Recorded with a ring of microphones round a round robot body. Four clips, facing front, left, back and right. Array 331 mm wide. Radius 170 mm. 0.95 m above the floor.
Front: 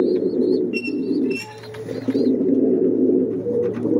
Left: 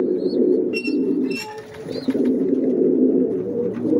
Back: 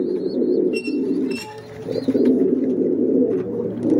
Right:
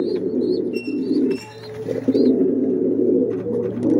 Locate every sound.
0.7 s a squeak: 100° left, 0.7 m